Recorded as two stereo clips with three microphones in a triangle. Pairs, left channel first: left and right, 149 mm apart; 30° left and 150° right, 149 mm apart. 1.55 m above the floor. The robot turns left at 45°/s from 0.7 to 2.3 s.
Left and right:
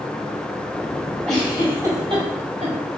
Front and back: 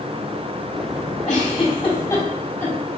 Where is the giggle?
5° left, 3.5 m; by 2.8 s 45° right, 3.5 m.